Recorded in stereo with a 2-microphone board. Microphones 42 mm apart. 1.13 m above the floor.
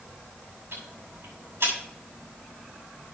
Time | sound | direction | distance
0.7 | ticking | 70° right (ahead or behind) | 6.5 m